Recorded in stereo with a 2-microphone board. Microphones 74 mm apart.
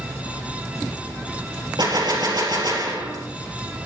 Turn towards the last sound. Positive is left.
turn(degrees=-70)  # may be behind; listen again after turning